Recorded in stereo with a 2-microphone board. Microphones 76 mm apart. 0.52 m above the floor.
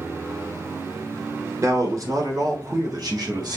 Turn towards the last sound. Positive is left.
turn(degrees=-65)  # may be behind; listen again after turning